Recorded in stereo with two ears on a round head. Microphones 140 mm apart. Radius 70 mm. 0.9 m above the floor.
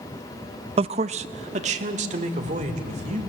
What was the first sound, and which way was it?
A man speaking, 35° right (ahead or behind).